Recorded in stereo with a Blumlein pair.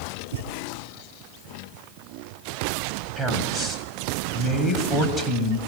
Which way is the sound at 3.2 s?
Straight ahead.